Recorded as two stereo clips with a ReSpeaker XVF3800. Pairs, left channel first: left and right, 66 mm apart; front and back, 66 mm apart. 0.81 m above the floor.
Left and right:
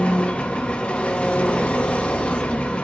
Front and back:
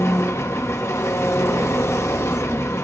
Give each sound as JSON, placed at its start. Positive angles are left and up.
{"t": 0.0, "sound": "an engine running", "azimuth_deg": 25, "distance_m": 0.9}